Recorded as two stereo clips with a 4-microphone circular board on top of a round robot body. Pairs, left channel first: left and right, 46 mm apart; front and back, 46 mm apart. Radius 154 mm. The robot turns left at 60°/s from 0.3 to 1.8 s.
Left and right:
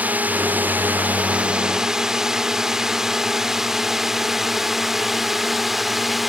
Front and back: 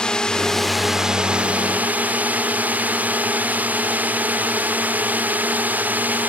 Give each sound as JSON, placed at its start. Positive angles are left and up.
{"t": 0.0, "sound": "a drone", "azimuth_deg": -65}